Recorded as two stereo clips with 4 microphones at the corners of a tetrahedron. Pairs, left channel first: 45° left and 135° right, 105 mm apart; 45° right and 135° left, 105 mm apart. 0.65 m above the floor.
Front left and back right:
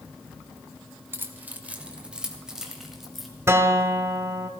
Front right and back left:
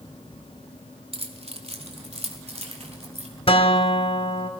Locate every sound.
1.1 s keys jangling: 155° left, 1.3 m; by 3.3 s 135° left, 2.5 m
3.5 s a guitar: 70° right, 1.4 m